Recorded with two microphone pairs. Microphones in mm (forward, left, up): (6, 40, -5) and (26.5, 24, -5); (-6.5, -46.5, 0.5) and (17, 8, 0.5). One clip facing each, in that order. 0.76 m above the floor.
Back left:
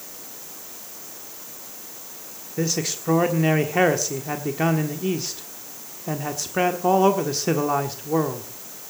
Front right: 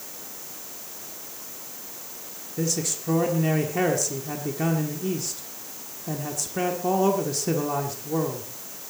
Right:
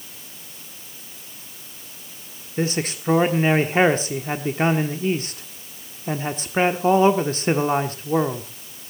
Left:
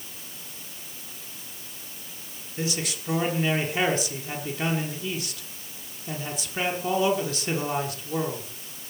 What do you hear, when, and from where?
2.6 s a man speaking: 165° right, 1.4 m